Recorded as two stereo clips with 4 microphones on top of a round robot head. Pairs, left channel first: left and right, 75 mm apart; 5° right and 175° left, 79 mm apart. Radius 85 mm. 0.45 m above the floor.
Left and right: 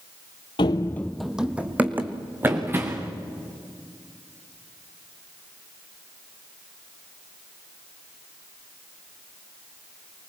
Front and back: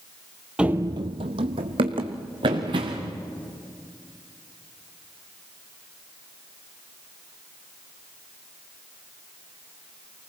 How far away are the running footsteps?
About 0.7 m.